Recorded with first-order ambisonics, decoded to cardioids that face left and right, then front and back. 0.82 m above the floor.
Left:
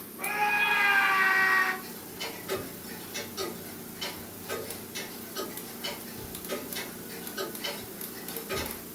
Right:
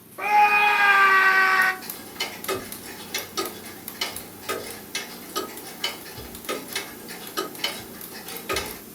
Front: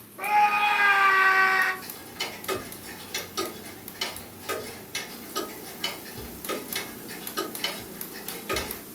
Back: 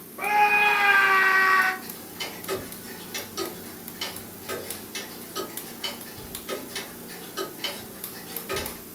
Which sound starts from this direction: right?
Ticking, at 1.8 s.